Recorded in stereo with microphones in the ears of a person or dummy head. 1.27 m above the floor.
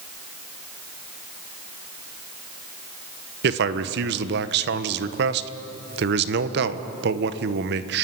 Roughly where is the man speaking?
Right.